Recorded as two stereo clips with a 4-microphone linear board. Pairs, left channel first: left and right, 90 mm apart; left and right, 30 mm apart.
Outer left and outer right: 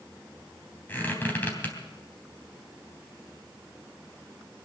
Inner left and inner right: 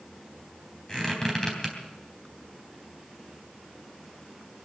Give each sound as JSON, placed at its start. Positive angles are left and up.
{"t": 0.9, "sound": "a squeak", "side_deg": 20, "distance_m": 3.5}